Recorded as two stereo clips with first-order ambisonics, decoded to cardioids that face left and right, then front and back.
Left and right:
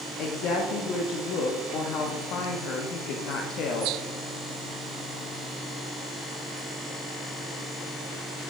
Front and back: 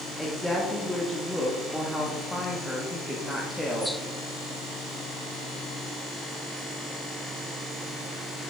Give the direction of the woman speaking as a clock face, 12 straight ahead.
9 o'clock.